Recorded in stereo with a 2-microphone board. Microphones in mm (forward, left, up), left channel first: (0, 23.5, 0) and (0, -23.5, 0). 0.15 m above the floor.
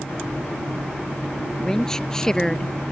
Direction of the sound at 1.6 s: 10° left (ahead or behind).